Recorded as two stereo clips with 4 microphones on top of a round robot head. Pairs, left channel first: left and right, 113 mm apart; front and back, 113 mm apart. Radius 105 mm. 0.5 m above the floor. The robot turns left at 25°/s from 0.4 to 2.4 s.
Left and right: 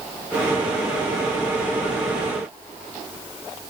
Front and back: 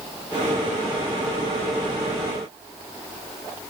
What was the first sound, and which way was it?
Only background noise.